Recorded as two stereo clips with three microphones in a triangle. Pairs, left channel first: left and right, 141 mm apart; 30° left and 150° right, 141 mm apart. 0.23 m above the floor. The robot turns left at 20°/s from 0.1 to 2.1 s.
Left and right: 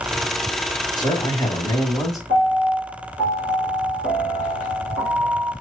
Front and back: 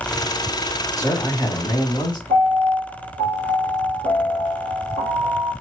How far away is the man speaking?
About 1.4 m.